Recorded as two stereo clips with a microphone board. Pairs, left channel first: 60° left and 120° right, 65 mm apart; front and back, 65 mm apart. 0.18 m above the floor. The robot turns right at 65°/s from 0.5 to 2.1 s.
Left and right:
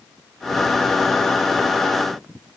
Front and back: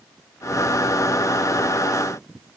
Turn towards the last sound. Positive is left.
No sound to turn to.